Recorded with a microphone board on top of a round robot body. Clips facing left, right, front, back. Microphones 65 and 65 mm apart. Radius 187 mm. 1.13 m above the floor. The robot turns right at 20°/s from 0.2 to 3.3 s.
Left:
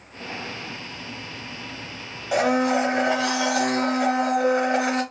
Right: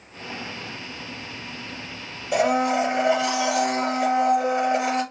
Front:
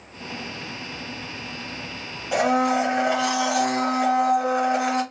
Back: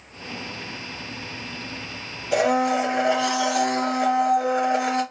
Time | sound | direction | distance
2.3 | a blender | 75° left | 1.8 m